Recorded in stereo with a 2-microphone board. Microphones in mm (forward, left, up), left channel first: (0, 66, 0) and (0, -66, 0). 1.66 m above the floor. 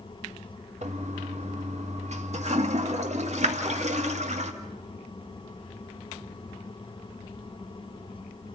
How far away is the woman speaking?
I don't hear a woman speaking.